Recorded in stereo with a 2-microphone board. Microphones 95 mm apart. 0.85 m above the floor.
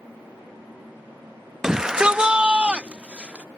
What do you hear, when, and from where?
1.6 s a shout: 5° right (ahead or behind); by 3.5 s 15° right (ahead or behind)